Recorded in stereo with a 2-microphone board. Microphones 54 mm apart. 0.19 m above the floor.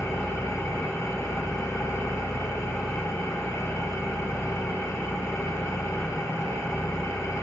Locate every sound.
0.0 s an engine running: 75° left (ahead or behind), 1.5 m